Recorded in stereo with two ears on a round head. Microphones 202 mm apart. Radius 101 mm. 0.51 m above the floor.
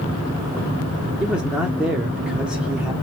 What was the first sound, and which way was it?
A man speaking, 5° right (ahead or behind).